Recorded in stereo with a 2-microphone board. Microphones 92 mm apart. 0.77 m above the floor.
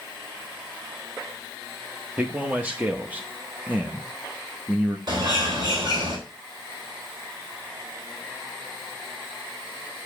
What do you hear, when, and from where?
2.2 s a man speaking: 15° right (ahead or behind), 0.7 m
5.1 s a bird: 50° right (ahead or behind), 3 m